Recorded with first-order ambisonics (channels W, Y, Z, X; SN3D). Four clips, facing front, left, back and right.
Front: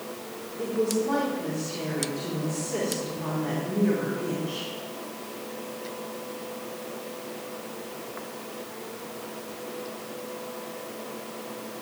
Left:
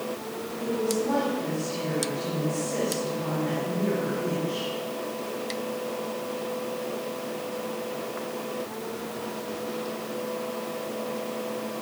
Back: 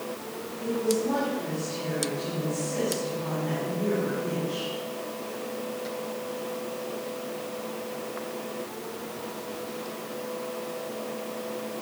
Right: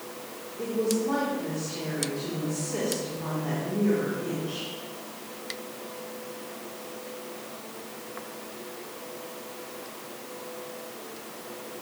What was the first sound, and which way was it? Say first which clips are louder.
A woman speaking: even, front 1 dB; 25° right.